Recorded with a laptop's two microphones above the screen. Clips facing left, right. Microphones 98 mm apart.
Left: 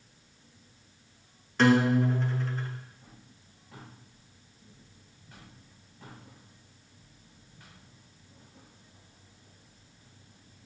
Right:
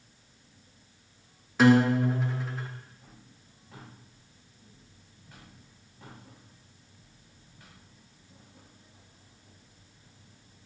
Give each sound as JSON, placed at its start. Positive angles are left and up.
{"t": 1.6, "sound": "a guitar", "side_deg": -5, "distance_m": 1.0}